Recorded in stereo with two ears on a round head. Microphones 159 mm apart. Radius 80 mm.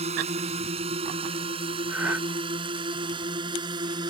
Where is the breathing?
10° right (ahead or behind).